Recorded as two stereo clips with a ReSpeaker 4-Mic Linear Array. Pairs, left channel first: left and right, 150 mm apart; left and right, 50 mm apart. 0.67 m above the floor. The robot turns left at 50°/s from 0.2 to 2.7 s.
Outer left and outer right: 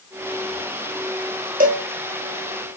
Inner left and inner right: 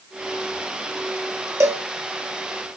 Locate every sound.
1.6 s a cowbell: 70° right (ahead or behind), 0.9 m; by 1.9 s 75° right (ahead or behind), 0.9 m